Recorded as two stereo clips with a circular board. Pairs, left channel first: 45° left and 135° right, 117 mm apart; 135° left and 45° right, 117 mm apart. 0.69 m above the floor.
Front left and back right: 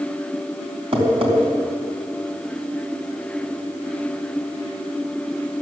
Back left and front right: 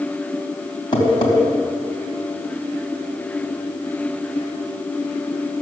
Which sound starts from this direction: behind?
Tapping, at 0.9 s.